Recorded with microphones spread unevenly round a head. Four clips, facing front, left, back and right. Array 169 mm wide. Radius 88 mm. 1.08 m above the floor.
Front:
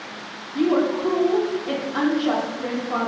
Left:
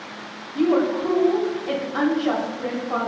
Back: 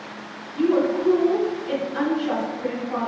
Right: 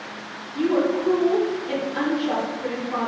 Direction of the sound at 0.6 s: 40° left.